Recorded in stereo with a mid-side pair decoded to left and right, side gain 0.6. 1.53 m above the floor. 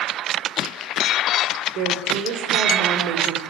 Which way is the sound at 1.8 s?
70° right.